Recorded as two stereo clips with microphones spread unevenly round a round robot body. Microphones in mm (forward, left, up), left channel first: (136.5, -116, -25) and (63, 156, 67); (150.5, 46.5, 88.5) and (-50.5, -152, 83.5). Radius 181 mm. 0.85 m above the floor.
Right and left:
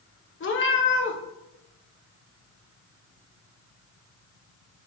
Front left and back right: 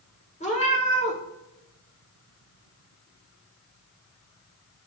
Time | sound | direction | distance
0.4 | a cat meowing | 25° right | 1.2 m